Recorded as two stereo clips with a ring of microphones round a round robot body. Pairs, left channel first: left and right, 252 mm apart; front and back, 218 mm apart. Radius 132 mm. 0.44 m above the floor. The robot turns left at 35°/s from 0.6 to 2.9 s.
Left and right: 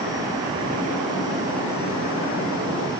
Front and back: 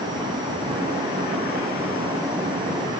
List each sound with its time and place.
Only background noise.